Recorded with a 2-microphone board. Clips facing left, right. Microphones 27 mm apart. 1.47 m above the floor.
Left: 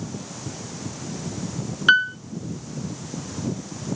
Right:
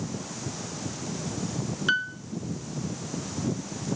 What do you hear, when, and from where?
1.9 s a piano: 30° left (ahead or behind), 1.5 m